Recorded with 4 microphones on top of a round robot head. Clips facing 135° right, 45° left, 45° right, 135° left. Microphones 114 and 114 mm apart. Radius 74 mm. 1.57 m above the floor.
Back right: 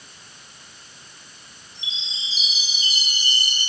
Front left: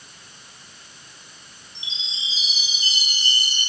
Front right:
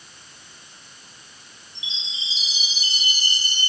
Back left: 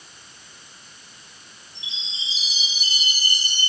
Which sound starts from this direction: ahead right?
A chime, at 1.8 s.